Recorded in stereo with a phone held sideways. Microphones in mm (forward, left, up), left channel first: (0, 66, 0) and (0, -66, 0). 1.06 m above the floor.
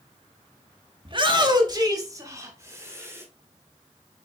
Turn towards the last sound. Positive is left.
turn(degrees=-20)  # may be behind; listen again after turning